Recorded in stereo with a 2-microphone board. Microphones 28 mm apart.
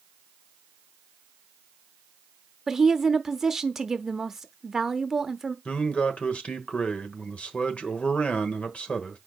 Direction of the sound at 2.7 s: 20° right (ahead or behind).